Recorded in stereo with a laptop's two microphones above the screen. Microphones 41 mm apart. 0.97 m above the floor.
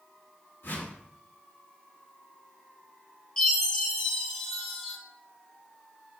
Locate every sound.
0.6 s a whoosh: 75° left (ahead or behind), 2.5 m
3.4 s a chime: 15° left (ahead or behind), 4 m